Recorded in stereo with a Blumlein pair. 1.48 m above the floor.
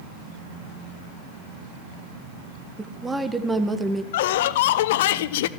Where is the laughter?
55° left, 0.6 m.